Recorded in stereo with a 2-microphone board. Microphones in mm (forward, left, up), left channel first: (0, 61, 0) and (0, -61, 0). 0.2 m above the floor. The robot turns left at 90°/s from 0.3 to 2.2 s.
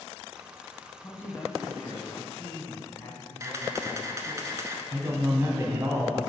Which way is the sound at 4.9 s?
25° right (ahead or behind).